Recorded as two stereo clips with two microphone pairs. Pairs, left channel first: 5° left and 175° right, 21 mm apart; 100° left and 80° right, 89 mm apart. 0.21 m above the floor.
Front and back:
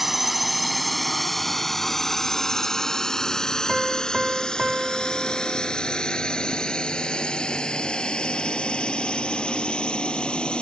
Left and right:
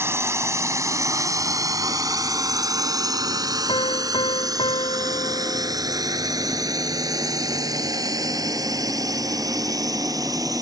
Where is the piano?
110° left.